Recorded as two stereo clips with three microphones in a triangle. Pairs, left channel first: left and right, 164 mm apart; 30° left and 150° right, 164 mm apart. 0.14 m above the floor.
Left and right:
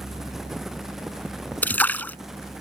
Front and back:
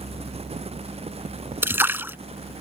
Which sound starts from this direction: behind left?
A splash, at 1.6 s.